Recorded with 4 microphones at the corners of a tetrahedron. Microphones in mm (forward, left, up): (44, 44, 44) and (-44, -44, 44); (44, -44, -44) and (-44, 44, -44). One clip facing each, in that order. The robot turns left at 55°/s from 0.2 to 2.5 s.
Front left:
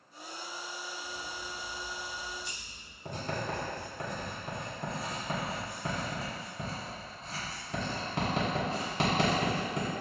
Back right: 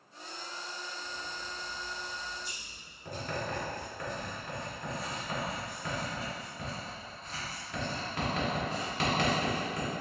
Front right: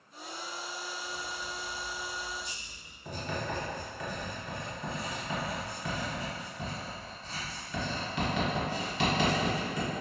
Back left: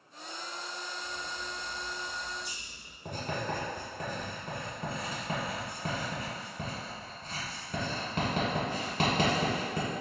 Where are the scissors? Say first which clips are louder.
Front left 1 dB, front right 1 dB; 130° left, 1.7 m; by 3.0 s 50° left, 1.7 m.